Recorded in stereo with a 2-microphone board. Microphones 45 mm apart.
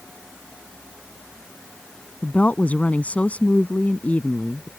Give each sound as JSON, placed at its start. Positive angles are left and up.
{"t": 2.2, "sound": "a woman speaking", "side_deg": 35}